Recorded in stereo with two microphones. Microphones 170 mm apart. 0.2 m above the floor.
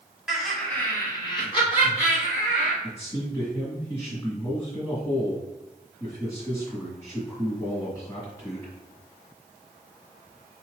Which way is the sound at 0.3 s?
5° right (ahead or behind).